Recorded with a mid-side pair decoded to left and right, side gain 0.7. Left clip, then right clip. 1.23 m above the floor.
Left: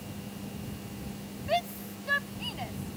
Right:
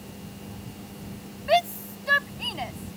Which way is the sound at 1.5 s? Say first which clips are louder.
Right 8 dB; 35° right.